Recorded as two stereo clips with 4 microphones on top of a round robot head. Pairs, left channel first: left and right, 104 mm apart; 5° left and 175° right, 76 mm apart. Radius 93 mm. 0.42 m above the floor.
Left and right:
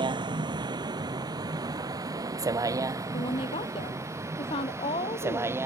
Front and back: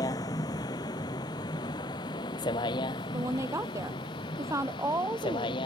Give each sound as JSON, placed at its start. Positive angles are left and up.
{"t": 0.0, "sound": "a vehicle", "azimuth_deg": -45}
{"t": 3.1, "sound": "a woman speaking", "azimuth_deg": 135}